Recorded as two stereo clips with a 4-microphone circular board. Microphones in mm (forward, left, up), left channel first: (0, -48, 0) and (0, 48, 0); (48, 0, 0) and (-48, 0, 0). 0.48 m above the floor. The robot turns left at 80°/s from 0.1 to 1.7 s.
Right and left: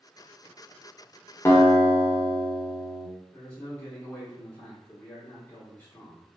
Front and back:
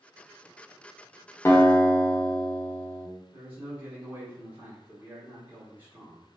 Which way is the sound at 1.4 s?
45° right.